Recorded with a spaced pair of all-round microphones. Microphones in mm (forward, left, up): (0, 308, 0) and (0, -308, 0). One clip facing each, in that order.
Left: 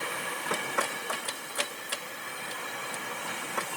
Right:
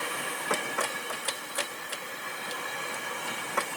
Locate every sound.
Only background noise.